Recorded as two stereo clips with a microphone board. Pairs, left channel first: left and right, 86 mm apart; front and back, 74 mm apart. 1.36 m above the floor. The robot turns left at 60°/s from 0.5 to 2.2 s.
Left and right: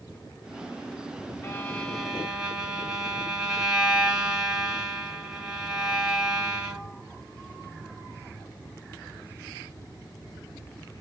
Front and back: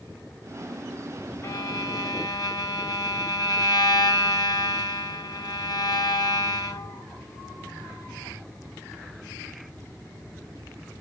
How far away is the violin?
About 1.1 m.